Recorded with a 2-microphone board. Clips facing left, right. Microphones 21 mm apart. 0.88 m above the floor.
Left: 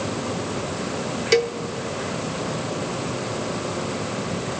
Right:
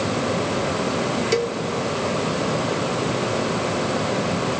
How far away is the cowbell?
About 0.6 m.